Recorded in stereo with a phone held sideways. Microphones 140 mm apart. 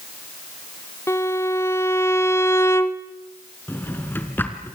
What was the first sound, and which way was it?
A violin, 20° left (ahead or behind).